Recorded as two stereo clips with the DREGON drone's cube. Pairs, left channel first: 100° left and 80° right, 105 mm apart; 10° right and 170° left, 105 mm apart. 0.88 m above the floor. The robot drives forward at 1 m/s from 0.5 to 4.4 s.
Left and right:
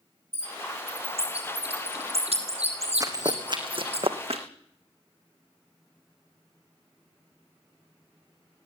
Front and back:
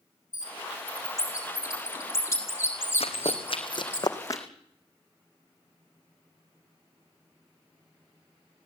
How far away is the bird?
About 9 m.